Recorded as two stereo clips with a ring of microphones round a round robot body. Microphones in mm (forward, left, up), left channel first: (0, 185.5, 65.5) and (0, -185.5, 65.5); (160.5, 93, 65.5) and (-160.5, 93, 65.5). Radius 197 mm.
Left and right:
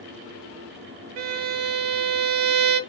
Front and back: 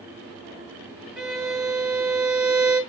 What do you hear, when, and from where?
1.2 s a violin: 90° right, 0.6 m